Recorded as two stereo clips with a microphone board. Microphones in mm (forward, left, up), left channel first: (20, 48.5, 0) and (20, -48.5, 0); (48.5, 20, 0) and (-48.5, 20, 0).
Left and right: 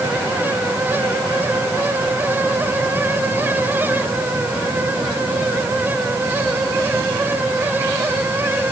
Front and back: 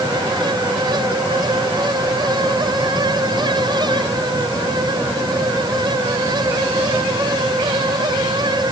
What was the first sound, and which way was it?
Only background noise.